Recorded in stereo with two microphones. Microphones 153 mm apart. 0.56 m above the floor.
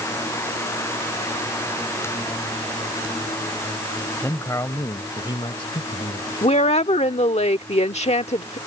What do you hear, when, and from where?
4.2 s a man speaking: 15° left (ahead or behind); by 6.3 s 50° left (ahead or behind)
6.4 s a woman speaking: 50° left (ahead or behind)